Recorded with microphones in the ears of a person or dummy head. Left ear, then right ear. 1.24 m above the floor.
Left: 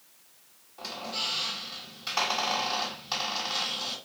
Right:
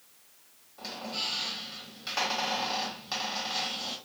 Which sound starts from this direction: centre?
A squeak, at 0.8 s.